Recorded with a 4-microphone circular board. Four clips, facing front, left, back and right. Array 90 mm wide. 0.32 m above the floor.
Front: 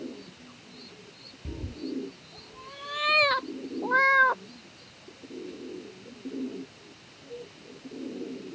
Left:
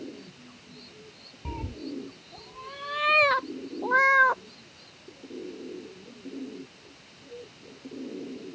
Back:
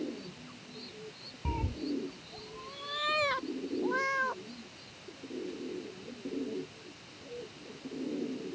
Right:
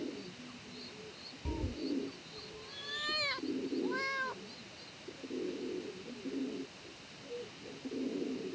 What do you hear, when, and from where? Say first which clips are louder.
1.4 s a cat meowing: left 1 dB, back 1 dB; 155° left; by 4.4 s 55° left